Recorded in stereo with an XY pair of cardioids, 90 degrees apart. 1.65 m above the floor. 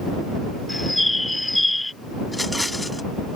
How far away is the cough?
I don't hear a cough.